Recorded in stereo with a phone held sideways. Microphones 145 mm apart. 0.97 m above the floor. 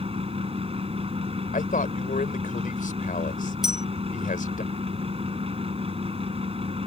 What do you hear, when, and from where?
0.0 s a fan: 45° right (ahead or behind)
1.5 s a man speaking: 70° left (ahead or behind)
3.6 s a bell: 5° right (ahead or behind)